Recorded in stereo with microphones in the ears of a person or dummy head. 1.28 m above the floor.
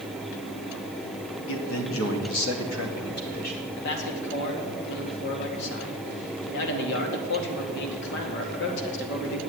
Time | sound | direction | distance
1.5 | a man speaking | 70° left (ahead or behind) | 2.5 m
3.8 | a man speaking | 65° left (ahead or behind) | 2 m